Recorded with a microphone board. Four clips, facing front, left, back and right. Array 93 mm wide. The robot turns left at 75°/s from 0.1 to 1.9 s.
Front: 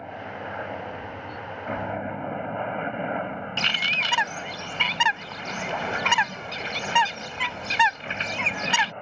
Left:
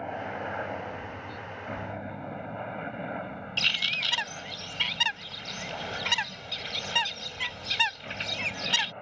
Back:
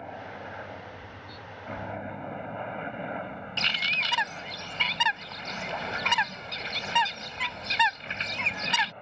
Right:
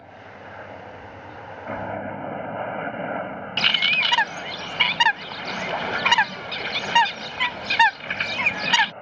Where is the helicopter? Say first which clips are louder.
Left 7 dB, front 4 dB; 70° left; by 9.0 s 20° right.